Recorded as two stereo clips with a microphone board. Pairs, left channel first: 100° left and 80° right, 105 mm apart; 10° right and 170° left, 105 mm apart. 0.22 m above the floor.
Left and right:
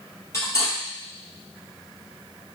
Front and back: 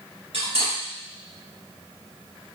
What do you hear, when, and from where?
0.3 s cutlery clinking: 160° left, 2.5 m